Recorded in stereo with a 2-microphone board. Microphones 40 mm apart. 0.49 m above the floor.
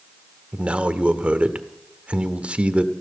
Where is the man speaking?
30° right (ahead or behind), 1.1 m.